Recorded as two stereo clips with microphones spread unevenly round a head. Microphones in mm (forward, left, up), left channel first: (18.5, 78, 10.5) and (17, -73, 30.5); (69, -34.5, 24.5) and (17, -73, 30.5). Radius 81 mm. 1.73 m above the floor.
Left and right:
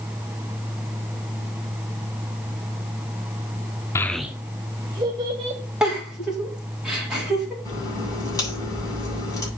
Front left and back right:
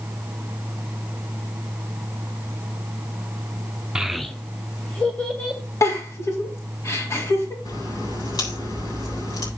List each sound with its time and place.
4.0 s a child speaking: 160° left, 0.6 m; by 5.6 s 35° right, 1.8 m
5.8 s a giggle: 5° right, 4.5 m
7.7 s a crack: 20° left, 8 m